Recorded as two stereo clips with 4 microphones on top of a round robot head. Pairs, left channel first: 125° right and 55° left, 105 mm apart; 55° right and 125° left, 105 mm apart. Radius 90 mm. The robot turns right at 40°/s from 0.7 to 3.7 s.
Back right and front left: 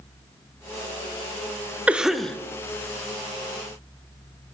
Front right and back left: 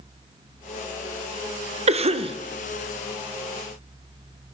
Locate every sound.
1.9 s a cough: 135° left, 0.5 m; by 2.4 s 155° left, 0.5 m